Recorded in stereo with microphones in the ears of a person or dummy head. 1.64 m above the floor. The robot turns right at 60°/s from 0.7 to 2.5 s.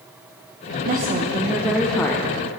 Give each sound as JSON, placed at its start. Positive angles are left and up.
{"t": 0.8, "sound": "a woman speaking", "azimuth_deg": -60, "distance_m": 1.1}